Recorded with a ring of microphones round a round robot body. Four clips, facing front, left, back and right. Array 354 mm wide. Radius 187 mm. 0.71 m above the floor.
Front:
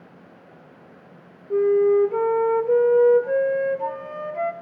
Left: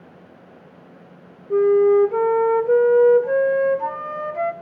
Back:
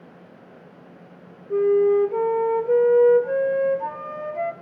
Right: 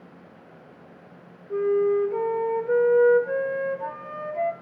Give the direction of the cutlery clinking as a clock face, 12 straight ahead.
I don't hear cutlery clinking.